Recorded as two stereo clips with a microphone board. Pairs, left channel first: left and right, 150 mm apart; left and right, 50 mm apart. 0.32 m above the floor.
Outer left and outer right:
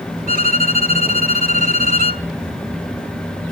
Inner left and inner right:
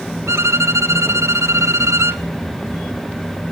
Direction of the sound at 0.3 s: 75° right (ahead or behind).